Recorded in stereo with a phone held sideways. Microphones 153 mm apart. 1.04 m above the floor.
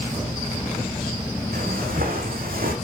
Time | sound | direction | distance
1.5 | footsteps | 70° right (ahead or behind) | 3 m